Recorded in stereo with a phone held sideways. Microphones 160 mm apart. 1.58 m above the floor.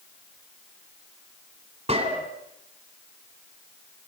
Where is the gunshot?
40° right (ahead or behind), 3.5 m.